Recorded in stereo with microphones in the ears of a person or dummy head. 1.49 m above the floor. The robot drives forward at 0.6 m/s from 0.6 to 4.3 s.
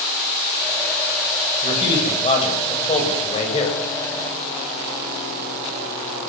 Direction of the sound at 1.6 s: 30° left (ahead or behind).